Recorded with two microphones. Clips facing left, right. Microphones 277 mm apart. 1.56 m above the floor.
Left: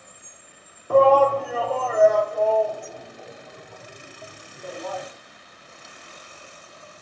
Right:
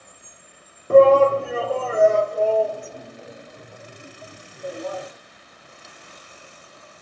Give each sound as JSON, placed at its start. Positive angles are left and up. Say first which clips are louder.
{"t": 0.9, "sound": "a shout", "louder": "right 4 dB", "side_deg": -25, "distance_m": 0.7}